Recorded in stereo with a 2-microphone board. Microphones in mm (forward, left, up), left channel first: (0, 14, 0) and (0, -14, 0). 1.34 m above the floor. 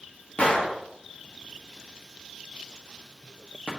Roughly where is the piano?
I don't hear a piano.